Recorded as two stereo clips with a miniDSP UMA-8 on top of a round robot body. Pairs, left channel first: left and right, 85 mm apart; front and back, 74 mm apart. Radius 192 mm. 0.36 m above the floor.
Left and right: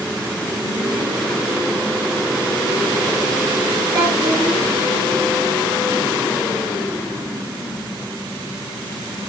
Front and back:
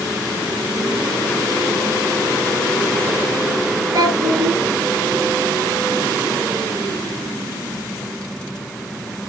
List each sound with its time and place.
3.9 s a child speaking: 155° right, 5.5 m